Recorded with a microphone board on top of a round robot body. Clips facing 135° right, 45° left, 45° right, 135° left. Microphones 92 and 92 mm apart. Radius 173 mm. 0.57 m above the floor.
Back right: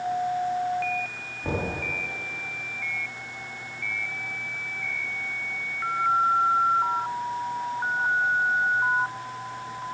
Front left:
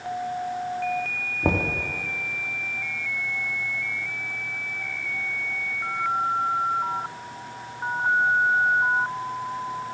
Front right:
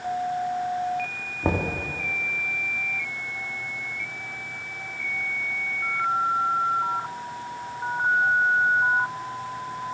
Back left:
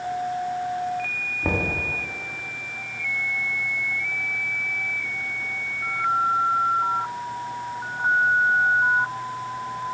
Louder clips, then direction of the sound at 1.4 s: Front left 5 dB, front right 1 dB; 20° left.